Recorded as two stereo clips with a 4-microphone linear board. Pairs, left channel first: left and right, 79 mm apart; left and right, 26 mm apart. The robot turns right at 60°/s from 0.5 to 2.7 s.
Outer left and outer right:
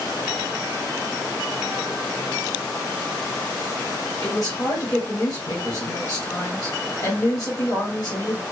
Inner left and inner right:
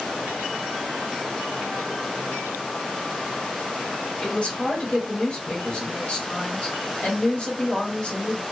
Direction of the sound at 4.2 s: 55° left (ahead or behind).